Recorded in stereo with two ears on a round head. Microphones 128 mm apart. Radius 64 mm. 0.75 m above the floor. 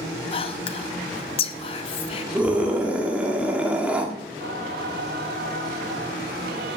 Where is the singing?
85° right, 3.5 m.